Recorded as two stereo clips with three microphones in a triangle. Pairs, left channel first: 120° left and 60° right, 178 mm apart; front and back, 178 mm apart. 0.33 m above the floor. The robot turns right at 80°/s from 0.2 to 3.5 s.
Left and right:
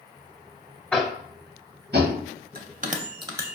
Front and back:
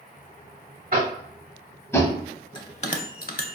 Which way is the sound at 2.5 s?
60° right.